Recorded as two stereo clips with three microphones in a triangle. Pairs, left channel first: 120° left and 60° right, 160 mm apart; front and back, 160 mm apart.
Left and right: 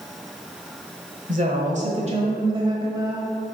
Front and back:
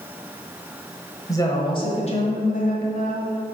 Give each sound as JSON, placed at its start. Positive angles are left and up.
{"t": 1.3, "sound": "a woman speaking", "azimuth_deg": -65, "distance_m": 1.4}